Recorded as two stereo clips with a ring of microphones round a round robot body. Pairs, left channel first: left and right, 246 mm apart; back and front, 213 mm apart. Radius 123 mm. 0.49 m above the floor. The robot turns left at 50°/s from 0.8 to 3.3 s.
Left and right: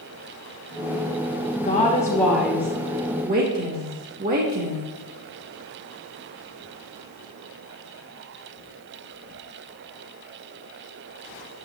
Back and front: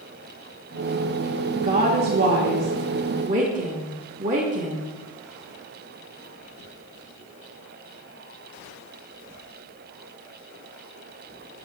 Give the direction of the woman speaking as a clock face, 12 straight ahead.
11 o'clock.